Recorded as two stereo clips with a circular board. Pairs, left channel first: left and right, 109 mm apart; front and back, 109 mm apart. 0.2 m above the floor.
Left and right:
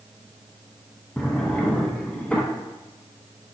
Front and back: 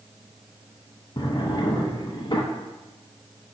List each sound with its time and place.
1.2 s a drawer: 15° left, 0.7 m